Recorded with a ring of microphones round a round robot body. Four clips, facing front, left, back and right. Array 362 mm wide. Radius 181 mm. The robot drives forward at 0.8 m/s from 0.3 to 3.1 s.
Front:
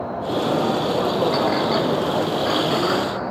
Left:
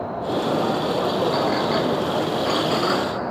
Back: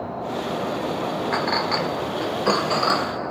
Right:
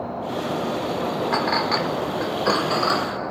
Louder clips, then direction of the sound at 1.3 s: Left 1 dB, front 4 dB; 105° right.